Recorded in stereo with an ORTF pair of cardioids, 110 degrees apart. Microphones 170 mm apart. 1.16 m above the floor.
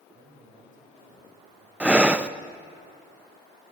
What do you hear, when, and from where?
0.1 s a man speaking: 50° right, 7 m
1.8 s breathing: 10° right, 0.7 m